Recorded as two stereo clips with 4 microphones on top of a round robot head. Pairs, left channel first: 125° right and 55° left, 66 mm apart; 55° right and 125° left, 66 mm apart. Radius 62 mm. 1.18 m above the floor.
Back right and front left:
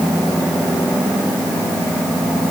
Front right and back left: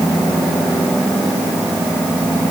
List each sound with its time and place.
Only background noise.